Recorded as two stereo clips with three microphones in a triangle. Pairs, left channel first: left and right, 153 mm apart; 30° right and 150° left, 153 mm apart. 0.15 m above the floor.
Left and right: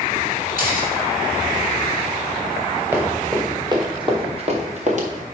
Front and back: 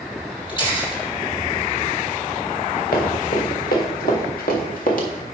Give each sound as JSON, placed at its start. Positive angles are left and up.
{"t": 0.5, "sound": "a camera shutter", "azimuth_deg": -85, "distance_m": 3.5}
{"t": 2.9, "sound": "running footsteps", "azimuth_deg": -15, "distance_m": 2.5}